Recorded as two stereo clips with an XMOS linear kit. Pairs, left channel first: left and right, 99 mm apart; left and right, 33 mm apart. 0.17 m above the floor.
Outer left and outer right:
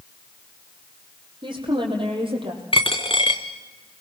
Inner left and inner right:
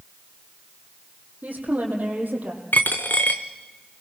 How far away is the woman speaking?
About 6.5 m.